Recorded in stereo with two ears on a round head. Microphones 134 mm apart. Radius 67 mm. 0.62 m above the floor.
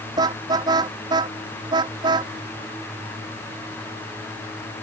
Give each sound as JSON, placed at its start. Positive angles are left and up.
{"t": 0.2, "sound": "a car horn", "side_deg": -30}